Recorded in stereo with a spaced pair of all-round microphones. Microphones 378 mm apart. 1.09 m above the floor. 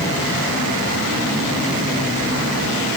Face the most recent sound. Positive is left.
No sound to turn to.